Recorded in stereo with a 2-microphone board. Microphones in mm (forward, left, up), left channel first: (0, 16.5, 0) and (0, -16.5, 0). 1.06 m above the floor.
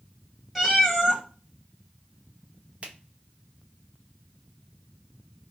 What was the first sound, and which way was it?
A cat meowing, centre (ahead or behind).